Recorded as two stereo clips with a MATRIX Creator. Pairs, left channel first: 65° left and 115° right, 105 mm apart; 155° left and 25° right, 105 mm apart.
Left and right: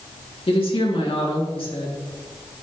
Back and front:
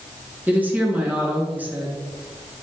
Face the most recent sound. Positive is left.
turn(degrees=50)